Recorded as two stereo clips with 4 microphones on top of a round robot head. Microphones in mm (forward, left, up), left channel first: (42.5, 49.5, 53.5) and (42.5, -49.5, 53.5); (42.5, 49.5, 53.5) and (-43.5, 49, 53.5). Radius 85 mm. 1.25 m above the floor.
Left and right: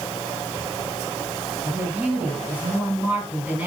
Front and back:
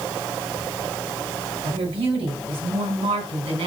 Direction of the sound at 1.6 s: 170° right.